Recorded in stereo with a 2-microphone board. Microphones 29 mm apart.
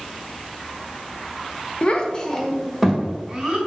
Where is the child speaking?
40° left (ahead or behind), 1.1 m; by 3.6 s 15° right (ahead or behind), 2.5 m.